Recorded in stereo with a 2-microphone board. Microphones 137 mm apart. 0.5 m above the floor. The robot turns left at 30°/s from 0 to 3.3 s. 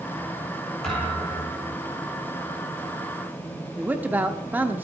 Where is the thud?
5° left (ahead or behind), 6 m; by 1.7 s 30° left (ahead or behind), 6 m.